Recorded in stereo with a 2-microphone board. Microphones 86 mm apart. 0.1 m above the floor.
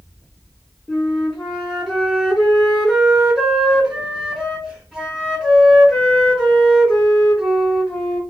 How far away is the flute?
About 1.7 m.